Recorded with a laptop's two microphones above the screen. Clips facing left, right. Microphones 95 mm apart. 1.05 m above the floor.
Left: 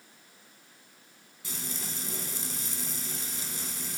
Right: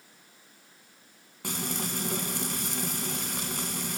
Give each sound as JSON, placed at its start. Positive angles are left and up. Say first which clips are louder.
{"t": 1.4, "sound": "frying", "louder": "right 8 dB", "side_deg": -60, "distance_m": 3.0}